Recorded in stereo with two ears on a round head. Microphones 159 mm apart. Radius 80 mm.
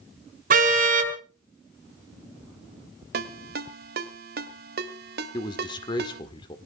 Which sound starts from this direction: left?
A man speaking, at 5.3 s.